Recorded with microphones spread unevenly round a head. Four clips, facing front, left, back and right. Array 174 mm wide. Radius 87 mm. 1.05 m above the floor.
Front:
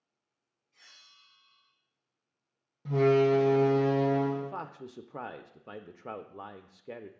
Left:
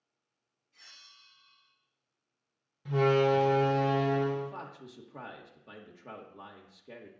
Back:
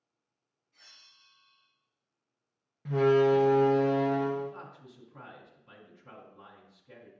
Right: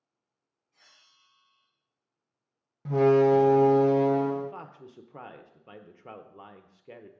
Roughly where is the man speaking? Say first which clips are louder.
Right 2 dB, front 2 dB; ahead.